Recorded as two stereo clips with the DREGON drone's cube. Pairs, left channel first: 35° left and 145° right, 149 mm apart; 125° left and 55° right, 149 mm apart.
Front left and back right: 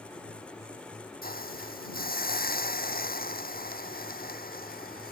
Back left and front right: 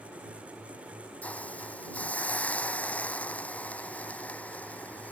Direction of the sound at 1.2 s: 45° left.